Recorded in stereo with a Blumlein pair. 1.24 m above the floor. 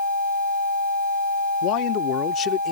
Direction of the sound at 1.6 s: 40° left.